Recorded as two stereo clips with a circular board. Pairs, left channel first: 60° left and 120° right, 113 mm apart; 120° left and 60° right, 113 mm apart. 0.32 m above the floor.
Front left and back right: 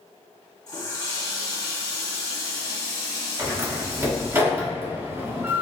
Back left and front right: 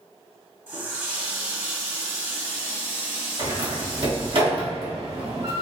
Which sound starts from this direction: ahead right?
A door slam, at 3.4 s.